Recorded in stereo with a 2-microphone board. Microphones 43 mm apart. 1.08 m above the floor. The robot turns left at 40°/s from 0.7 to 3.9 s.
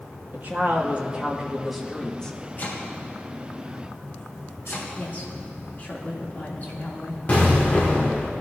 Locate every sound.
0.3 s a woman speaking: 135° right, 1.7 m; by 2.4 s 160° left, 1.7 m
2.6 s chopping: 45° left (ahead or behind), 2.5 m; by 4.8 s 75° left (ahead or behind), 2.5 m
5.0 s a woman speaking: 40° left (ahead or behind), 2.5 m
7.3 s an explosion: 35° left (ahead or behind), 2.0 m